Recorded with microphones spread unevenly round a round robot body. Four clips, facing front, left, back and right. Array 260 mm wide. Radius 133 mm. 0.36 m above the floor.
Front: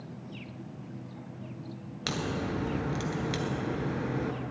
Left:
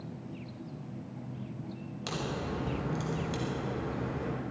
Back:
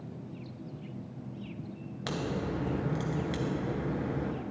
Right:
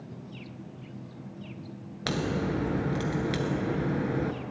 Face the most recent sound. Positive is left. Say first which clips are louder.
# right 7 dB, front 1 dB
turn(degrees=-75)